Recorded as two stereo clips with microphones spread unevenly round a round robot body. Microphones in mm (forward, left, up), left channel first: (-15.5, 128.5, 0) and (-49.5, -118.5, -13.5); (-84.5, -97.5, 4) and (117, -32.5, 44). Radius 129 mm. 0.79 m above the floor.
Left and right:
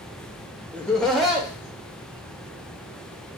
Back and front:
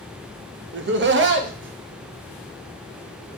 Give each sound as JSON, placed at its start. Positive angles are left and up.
{"t": 0.7, "sound": "laughter", "azimuth_deg": -5, "distance_m": 0.7}